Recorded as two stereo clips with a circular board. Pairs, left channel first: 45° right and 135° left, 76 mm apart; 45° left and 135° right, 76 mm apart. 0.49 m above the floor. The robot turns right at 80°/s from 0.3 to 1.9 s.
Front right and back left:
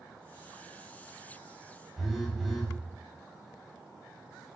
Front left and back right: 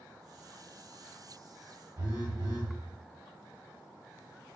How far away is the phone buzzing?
About 1.0 m.